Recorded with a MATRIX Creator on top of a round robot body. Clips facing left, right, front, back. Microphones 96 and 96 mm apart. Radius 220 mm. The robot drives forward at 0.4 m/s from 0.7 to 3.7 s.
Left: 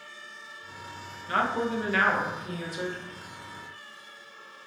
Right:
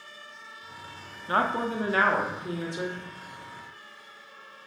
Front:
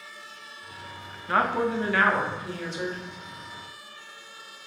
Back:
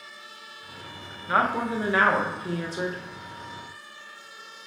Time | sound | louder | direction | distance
1.3 | a woman speaking | right 1 dB, even | 100° right | 0.9 m